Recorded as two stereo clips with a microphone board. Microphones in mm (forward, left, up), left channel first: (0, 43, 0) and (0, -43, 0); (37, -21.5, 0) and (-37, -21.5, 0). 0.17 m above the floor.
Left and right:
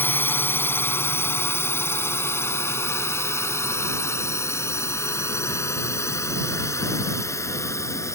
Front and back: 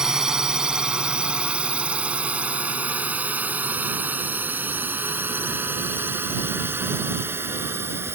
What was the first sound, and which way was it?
A drone, 110° left.